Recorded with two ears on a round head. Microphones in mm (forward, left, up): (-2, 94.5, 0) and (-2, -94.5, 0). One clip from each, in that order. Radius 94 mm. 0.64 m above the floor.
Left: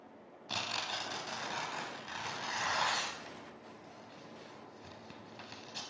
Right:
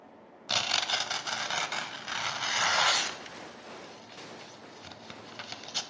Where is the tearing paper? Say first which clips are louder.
Right 9 dB; 45° right (ahead or behind), 0.5 m.